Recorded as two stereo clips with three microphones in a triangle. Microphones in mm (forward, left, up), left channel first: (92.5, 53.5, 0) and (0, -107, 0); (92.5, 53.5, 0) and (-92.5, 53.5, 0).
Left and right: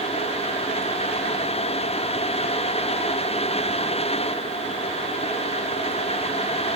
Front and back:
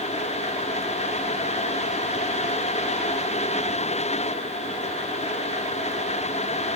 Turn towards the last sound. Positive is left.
No sound to turn to.